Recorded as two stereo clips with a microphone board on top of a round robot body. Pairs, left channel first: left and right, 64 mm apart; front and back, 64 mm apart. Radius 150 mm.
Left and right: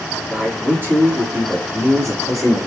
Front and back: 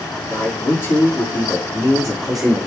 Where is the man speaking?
35° right, 2 m; by 2.6 s 95° right, 2 m.